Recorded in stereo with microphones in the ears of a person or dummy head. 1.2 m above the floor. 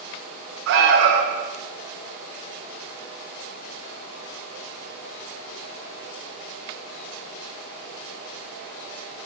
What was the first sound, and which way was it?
An alarm, 65° right (ahead or behind).